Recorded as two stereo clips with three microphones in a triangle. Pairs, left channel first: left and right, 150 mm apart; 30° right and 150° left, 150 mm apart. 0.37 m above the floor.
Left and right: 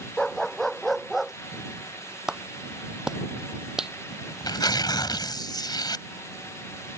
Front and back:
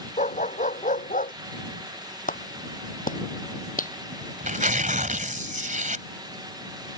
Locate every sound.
0.2 s a dog barking: 5° left; by 1.3 s straight ahead
2.3 s a clap: 5° right
4.1 s tearing paper: 145° left